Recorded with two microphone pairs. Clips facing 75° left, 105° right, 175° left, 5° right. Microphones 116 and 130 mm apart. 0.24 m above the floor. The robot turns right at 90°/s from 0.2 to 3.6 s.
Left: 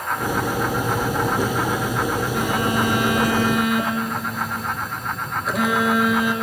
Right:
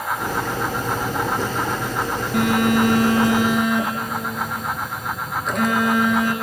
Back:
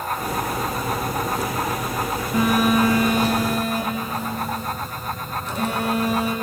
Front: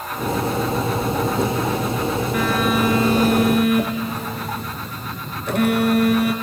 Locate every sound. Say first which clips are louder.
2.3 s a phone buzzing: right 7 dB, back 4 dB; 125° right, 3 m; by 6.3 s 10° right, 3 m